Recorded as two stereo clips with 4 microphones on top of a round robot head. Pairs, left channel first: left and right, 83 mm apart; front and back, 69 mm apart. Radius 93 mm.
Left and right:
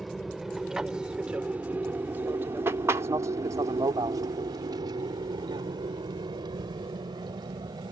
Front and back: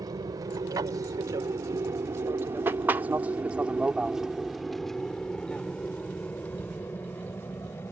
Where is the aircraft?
Straight behind; by 7.9 s 55° right.